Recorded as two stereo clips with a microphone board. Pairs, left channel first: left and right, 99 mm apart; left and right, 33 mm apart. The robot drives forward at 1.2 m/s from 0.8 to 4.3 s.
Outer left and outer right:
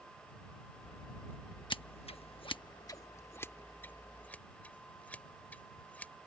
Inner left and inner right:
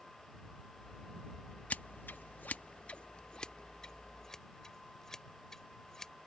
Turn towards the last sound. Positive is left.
turn(degrees=15)  # may be behind; listen again after turning